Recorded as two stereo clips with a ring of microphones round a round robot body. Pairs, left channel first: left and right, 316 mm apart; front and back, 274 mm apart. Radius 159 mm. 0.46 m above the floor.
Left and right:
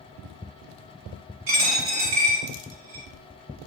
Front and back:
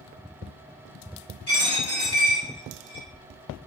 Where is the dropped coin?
60° right, 1.1 m.